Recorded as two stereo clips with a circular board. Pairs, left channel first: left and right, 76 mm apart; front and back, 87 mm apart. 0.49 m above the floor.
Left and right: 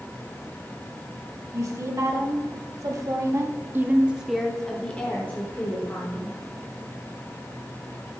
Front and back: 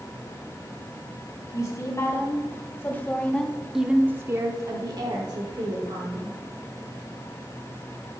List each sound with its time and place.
1.5 s a woman speaking: 50° right, 2 m; by 6.3 s 145° left, 2.0 m